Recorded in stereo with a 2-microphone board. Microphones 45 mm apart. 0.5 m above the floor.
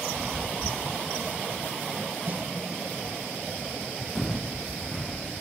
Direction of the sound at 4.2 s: 5° left (ahead or behind).